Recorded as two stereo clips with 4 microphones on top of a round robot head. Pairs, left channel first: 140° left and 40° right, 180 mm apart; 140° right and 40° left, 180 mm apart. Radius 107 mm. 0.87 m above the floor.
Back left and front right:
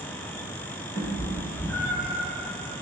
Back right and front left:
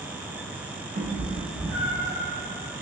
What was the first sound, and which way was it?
A cat meowing, 65° left.